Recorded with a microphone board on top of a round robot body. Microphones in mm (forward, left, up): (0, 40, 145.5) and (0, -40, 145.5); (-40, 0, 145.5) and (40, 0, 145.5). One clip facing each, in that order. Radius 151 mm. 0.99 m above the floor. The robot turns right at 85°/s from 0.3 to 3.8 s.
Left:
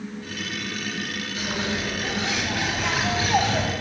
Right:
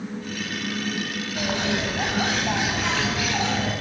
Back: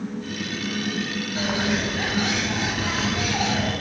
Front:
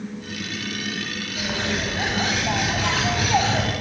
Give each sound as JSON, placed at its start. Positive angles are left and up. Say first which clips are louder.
{"t": 1.4, "sound": "a bird", "louder": "right 3 dB, back 2 dB", "azimuth_deg": -130, "distance_m": 7.5}